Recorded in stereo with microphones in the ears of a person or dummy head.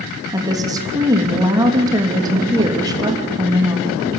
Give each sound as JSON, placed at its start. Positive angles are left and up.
{"t": 0.3, "sound": "a woman speaking", "side_deg": -25, "distance_m": 2.5}